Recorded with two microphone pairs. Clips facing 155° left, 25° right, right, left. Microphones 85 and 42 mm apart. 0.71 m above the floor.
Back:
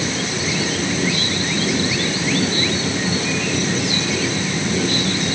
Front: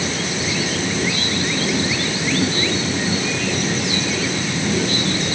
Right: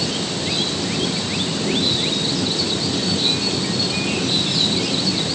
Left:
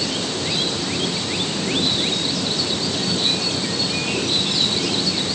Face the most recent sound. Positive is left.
No sound to turn to.